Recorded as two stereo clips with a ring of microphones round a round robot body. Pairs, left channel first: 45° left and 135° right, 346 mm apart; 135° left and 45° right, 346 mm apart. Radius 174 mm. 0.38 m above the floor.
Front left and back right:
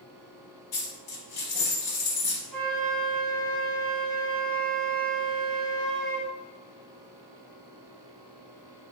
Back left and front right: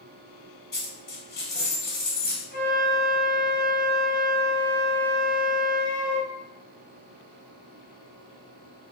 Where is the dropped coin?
70° left, 0.9 m.